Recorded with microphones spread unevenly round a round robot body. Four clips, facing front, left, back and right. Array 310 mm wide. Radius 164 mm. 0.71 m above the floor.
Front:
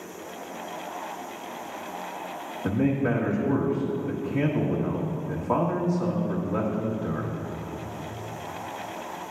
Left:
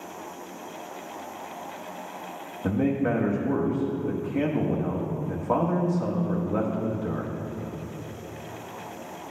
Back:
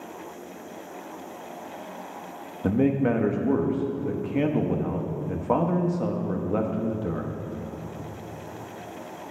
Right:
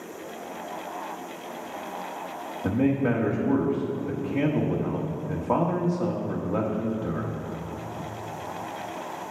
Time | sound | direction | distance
2.6 | a man speaking | straight behind | 1.1 m